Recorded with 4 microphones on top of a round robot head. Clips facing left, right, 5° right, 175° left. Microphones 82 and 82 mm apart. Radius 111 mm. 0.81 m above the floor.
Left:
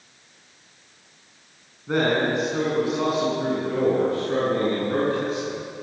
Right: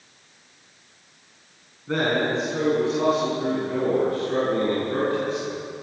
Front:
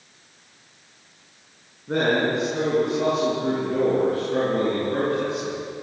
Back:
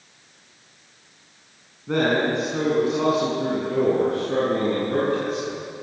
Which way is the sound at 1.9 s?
165° left.